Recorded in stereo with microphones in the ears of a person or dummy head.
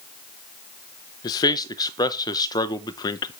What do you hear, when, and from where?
1.2 s a man speaking: 15° left (ahead or behind), 0.7 m